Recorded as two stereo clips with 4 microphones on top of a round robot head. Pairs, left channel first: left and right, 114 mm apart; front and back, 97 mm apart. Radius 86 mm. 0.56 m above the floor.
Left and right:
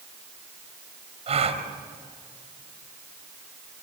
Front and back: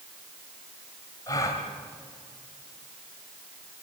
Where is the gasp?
60° right, 2.5 m.